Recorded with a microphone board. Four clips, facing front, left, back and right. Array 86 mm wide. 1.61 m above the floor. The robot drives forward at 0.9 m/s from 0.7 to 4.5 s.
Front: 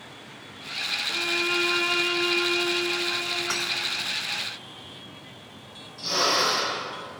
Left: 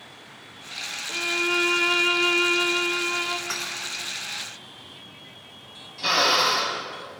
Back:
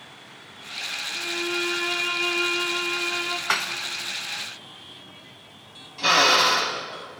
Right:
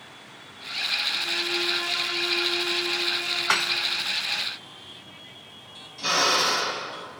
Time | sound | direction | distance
1.1 | a violin | 60° left | 2 m
3.5 | dishes clattering | 125° right | 0.9 m
6.0 | a drill | 165° left | 6 m